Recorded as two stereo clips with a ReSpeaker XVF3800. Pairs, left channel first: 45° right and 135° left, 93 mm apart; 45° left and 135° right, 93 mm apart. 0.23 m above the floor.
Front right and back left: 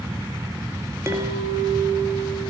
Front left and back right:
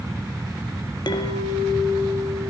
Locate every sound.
1.1 s a clink: 80° left, 3 m